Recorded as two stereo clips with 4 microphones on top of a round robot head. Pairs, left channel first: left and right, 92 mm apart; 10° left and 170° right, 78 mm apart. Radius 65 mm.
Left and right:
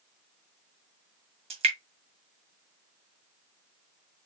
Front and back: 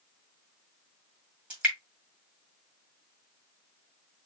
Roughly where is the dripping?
Right.